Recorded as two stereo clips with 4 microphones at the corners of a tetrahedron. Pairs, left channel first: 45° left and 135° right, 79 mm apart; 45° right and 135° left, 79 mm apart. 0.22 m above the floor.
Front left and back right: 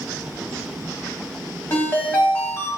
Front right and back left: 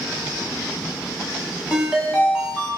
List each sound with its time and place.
1.7 s a ringtone: 65° left, 1.0 m